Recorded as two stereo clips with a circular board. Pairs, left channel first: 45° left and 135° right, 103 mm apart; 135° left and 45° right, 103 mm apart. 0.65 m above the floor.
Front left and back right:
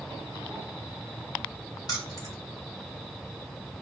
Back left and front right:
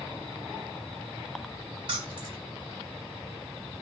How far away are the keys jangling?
About 2 m.